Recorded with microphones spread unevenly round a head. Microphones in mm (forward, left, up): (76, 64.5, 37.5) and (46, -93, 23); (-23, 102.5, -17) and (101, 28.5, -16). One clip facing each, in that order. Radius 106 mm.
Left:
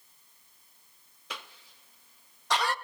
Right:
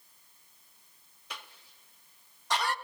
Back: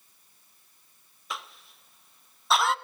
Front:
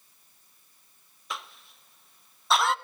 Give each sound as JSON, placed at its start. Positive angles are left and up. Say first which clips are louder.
{"t": 1.3, "sound": "a cough", "louder": "left 3 dB, even", "azimuth_deg": 60, "distance_m": 0.7}